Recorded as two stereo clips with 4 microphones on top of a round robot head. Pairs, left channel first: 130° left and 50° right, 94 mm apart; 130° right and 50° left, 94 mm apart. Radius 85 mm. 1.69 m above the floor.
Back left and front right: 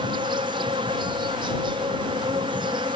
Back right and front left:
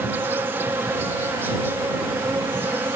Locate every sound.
0.0 s an insect: 15° right